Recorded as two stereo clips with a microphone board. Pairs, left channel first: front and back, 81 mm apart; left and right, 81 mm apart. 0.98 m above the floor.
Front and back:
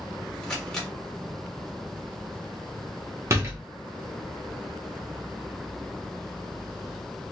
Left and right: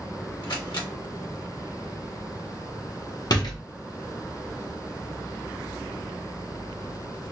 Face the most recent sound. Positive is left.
turn(degrees=125)